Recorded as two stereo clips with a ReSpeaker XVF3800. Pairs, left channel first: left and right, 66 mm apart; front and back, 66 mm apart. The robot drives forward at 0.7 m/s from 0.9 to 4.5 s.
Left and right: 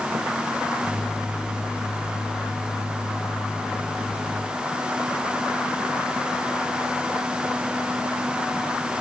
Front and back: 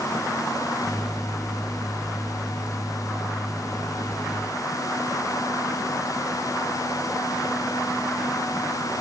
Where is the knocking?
No knocking in this recording.